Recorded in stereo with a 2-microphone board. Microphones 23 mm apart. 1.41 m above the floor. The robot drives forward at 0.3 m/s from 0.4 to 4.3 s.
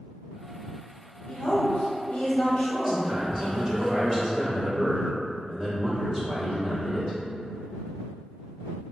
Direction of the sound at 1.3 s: 65° left (ahead or behind).